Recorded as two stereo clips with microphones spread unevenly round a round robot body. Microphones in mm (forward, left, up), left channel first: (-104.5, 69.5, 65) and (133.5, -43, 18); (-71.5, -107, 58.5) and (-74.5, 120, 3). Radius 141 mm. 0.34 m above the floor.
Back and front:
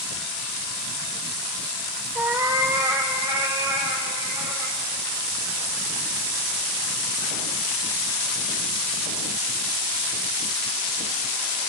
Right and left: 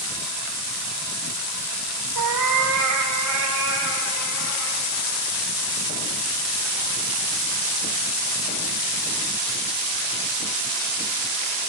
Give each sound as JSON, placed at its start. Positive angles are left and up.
{"t": 2.1, "sound": "a cat meowing", "azimuth_deg": 60, "distance_m": 1.1}